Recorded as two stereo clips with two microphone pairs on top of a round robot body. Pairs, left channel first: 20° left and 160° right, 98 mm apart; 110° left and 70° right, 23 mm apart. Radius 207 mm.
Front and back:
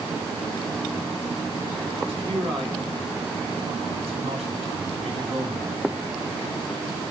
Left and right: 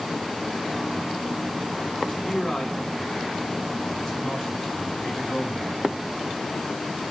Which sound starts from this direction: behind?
A man speaking, at 2.0 s.